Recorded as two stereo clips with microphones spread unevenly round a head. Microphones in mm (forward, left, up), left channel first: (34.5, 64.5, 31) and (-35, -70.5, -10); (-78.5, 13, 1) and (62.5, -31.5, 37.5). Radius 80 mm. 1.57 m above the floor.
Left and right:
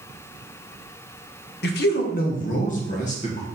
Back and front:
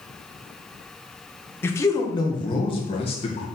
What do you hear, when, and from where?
1.6 s a man speaking: 90° left, 1.0 m; by 3.5 s 110° left, 2 m